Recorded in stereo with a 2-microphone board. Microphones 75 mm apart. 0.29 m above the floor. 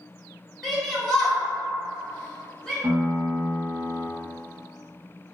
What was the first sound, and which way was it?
A shout, centre (ahead or behind).